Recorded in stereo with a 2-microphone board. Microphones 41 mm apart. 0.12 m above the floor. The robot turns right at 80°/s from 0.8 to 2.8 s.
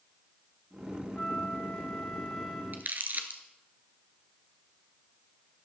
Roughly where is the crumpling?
Right.